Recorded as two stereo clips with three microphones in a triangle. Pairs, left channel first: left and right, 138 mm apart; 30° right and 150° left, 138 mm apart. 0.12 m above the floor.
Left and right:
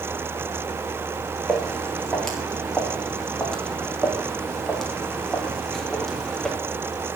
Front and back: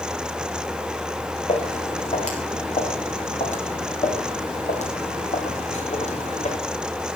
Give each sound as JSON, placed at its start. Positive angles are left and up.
{"t": 1.5, "sound": "footsteps", "azimuth_deg": 5, "distance_m": 5.5}